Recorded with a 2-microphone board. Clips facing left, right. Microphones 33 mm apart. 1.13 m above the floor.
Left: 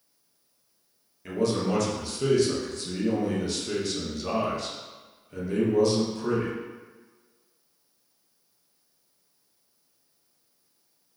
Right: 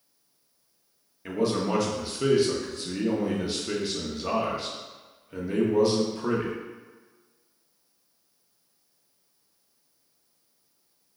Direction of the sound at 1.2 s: 15° right (ahead or behind).